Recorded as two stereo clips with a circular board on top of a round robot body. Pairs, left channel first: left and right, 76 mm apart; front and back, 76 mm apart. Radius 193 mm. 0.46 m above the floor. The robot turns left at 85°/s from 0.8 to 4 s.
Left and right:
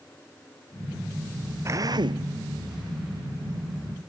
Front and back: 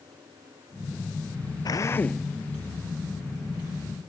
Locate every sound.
1.6 s a drill: 35° right; by 2.3 s 90° right